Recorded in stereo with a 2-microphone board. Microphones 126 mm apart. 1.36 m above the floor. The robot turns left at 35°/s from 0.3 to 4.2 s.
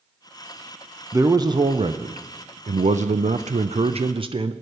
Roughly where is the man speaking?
Ahead right.